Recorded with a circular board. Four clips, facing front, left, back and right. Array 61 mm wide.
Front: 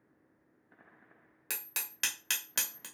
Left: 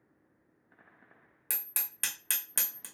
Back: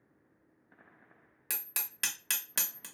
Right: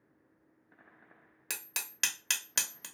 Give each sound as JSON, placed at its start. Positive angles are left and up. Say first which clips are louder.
{"t": 1.5, "sound": "hammering", "louder": "right 3 dB, front 1 dB", "azimuth_deg": -75, "distance_m": 0.7}